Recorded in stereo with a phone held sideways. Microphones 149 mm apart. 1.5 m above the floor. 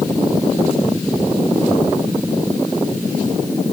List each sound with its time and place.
Only background noise.